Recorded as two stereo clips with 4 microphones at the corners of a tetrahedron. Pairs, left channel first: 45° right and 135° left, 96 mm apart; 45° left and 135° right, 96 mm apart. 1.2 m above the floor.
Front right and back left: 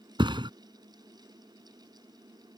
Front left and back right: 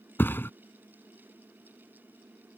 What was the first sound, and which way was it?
A thud, 110° left.